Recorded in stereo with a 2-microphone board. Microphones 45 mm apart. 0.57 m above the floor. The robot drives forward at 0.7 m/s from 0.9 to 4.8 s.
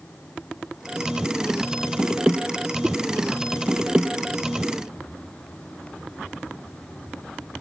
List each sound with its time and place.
2.8 s a whoosh: 20° right (ahead or behind)